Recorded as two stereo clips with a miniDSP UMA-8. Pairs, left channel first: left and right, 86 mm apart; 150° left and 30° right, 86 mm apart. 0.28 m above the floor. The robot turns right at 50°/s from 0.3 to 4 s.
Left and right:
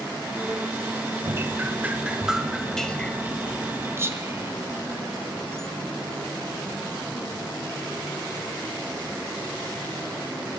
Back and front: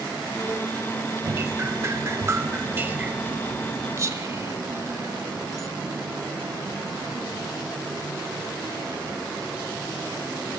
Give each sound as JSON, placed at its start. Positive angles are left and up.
{"t": 1.2, "sound": "dripping", "azimuth_deg": -70, "distance_m": 0.8}
{"t": 4.0, "sound": "whispering", "azimuth_deg": -55, "distance_m": 1.9}